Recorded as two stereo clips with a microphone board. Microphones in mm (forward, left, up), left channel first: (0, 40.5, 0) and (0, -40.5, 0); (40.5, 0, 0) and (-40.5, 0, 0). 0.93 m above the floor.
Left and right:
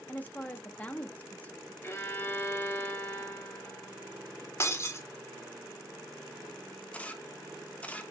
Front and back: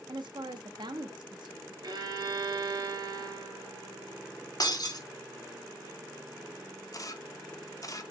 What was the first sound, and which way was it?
A woman speaking, 160° left.